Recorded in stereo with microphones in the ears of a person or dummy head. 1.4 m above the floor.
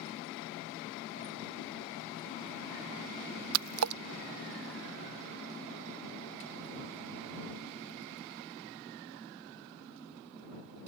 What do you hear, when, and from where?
3.5 s a splash: 80° right